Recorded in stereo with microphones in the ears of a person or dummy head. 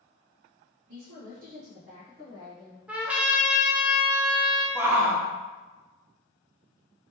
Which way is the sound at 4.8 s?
15° right (ahead or behind).